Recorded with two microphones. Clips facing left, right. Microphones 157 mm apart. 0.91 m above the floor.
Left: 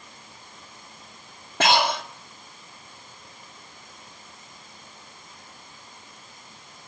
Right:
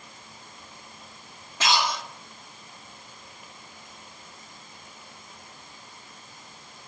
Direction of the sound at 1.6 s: 60° left (ahead or behind).